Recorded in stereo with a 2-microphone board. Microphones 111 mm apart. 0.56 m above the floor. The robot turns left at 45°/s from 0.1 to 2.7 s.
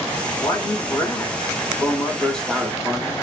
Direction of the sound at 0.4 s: 100° left.